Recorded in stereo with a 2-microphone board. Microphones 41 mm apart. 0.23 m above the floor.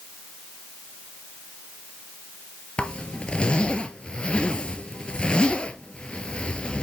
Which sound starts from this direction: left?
A zipper, at 2.8 s.